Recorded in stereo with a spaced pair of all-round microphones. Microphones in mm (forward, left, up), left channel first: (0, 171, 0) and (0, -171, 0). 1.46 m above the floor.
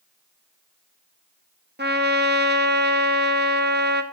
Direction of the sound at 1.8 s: 30° right (ahead or behind).